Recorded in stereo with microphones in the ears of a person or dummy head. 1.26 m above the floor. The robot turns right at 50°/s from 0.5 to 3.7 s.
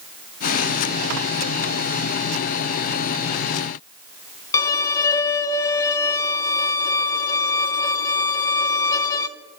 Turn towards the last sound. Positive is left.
turn(degrees=15)  # may be behind; listen again after turning